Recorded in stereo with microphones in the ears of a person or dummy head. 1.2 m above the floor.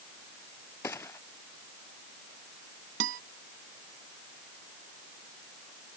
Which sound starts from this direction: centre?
A gunshot, at 0.8 s.